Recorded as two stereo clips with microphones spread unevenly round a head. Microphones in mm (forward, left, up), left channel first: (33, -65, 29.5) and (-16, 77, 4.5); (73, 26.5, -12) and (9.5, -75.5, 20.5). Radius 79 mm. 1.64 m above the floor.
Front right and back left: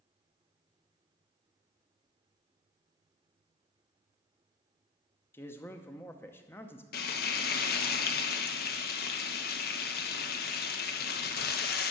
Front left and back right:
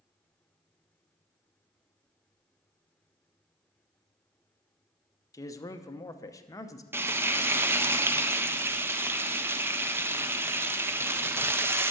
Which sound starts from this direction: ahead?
A man speaking, at 5.3 s.